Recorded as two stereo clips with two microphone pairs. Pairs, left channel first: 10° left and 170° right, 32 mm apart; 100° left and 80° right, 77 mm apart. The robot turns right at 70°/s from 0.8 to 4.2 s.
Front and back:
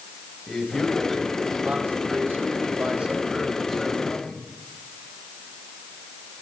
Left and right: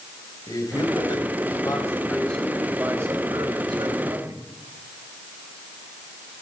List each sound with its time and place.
0.5 s a man speaking: 75° left, 3.5 m; by 4.4 s 45° right, 3.5 m